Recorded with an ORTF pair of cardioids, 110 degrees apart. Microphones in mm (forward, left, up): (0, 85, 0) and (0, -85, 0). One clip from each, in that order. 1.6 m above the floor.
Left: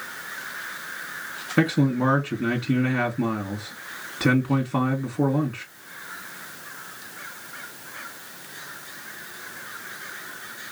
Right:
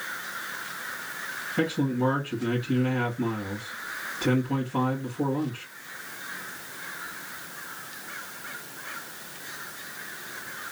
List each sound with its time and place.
1.6 s a man speaking: 70° left, 1.9 m